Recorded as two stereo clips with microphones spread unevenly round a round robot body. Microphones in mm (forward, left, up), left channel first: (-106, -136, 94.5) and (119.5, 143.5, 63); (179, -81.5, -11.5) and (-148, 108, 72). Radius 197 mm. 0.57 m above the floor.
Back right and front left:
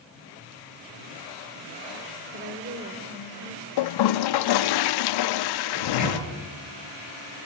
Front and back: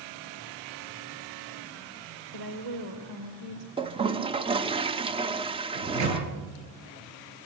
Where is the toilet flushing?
125° right, 0.5 m.